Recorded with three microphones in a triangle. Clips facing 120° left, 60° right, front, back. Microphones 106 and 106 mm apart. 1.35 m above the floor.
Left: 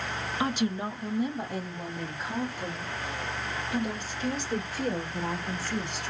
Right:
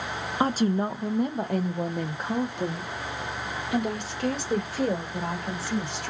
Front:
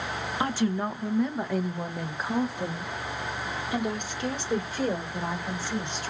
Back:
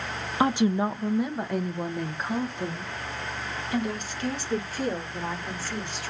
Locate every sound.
0.4 s a woman speaking: 115° right, 0.6 m; by 6.1 s 70° right, 3.5 m